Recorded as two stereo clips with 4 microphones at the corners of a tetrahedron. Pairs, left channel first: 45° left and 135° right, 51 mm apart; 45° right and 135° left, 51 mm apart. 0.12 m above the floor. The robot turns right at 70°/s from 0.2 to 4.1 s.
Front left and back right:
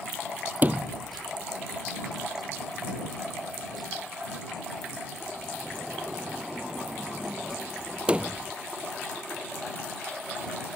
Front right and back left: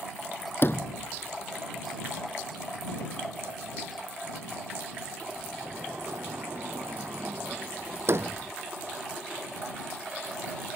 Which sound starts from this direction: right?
A sliding door, at 0.6 s.